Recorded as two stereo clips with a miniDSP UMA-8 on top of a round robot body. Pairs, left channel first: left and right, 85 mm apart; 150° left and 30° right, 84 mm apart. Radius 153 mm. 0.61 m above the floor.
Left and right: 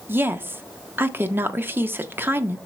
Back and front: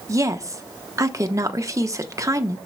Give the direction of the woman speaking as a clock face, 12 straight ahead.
1 o'clock.